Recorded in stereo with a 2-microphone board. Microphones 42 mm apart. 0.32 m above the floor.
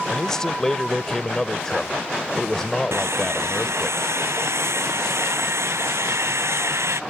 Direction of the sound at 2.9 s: 85° right.